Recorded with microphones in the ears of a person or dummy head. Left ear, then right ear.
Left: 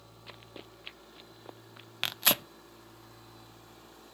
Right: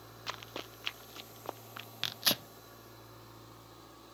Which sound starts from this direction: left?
Tearing paper, at 2.0 s.